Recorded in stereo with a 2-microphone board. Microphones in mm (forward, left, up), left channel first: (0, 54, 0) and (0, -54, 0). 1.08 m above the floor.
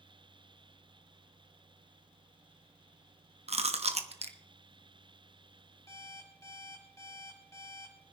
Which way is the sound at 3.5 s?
80° right.